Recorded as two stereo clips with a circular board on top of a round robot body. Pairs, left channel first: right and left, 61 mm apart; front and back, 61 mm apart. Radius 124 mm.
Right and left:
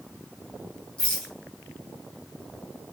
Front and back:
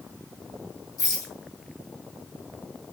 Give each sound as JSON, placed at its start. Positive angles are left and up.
{"t": 1.0, "sound": "a rattle", "azimuth_deg": -15, "distance_m": 2.5}